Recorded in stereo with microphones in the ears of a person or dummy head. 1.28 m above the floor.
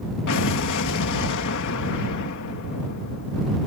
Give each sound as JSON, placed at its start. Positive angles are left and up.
{"t": 0.3, "sound": "an explosion", "side_deg": 60}